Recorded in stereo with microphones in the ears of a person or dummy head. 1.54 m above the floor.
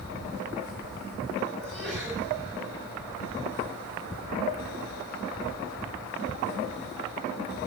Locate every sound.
1.6 s a sneeze: 5° left (ahead or behind), 6.5 m